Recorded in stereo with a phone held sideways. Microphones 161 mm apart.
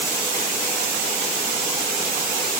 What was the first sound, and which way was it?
Only background noise.